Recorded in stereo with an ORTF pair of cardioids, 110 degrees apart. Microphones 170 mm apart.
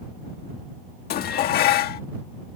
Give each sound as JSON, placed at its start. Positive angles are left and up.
{"t": 1.1, "sound": "dishes clattering", "azimuth_deg": 70}